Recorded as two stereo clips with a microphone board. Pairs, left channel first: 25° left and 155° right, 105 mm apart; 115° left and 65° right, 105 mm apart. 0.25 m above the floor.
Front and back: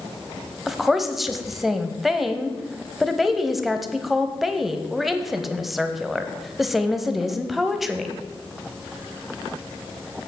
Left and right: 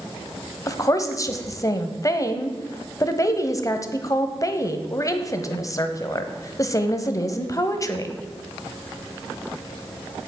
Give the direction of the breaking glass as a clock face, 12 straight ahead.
I don't hear breaking glass.